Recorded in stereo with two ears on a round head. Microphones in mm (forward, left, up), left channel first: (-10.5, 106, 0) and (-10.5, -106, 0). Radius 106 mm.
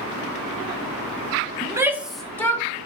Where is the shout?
20° right (ahead or behind), 0.8 m; by 2.7 s 15° left (ahead or behind), 1.1 m.